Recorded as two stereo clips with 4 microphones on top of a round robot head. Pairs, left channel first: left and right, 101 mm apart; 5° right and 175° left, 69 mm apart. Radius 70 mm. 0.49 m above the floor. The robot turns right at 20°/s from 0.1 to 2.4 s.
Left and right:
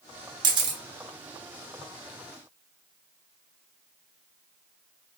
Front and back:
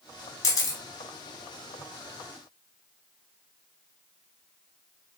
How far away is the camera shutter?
About 0.6 m.